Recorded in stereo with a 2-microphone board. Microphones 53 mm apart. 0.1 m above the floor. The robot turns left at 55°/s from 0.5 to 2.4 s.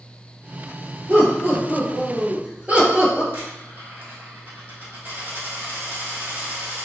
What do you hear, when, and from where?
1.1 s laughter: 60° right, 2.0 m; by 3.2 s 130° right, 2.0 m
3.3 s a dropped coin: 40° right (ahead or behind), 1.8 m